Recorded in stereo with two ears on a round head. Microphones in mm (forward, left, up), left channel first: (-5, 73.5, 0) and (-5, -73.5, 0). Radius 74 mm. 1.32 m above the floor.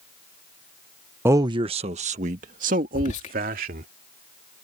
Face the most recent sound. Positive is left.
turn(degrees=45)  # may be behind; listen again after turning